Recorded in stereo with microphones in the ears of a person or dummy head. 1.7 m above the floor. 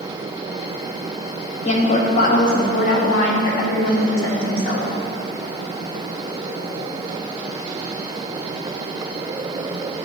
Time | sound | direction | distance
1.6 | a woman speaking | 45° left (ahead or behind) | 1.3 m